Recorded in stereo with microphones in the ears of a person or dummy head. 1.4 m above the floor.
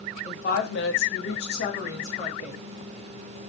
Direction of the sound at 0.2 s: 45° left (ahead or behind).